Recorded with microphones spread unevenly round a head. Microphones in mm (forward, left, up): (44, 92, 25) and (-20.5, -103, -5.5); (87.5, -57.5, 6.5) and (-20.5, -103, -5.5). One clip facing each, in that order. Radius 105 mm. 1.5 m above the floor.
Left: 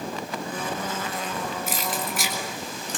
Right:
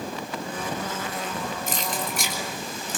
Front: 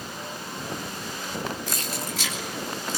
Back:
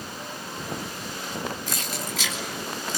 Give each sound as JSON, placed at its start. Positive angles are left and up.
{"t": 1.7, "sound": "keys jangling", "azimuth_deg": 155, "distance_m": 3.5}